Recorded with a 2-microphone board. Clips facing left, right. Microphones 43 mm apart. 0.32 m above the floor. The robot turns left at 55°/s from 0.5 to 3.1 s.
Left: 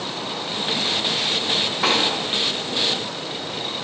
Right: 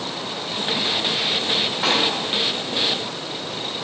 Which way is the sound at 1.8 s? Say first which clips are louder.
Left 1 dB; centre (ahead or behind).